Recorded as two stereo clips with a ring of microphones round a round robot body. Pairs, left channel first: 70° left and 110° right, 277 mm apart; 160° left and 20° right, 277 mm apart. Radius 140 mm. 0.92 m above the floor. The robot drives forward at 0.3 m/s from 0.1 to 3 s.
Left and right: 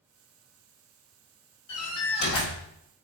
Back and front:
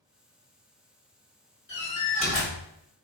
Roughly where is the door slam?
Left.